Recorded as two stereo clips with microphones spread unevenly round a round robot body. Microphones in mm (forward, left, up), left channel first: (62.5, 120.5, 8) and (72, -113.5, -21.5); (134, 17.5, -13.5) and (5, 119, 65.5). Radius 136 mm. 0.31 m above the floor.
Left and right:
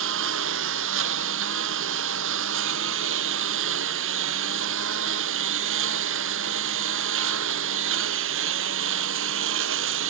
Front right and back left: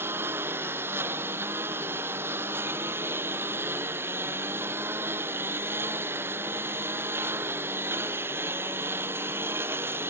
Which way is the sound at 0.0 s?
135° right.